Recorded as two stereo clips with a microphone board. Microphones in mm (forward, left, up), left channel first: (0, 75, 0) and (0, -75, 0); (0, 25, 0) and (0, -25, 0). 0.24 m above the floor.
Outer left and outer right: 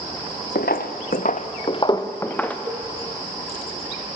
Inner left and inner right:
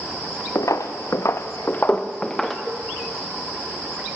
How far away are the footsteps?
About 1.7 m.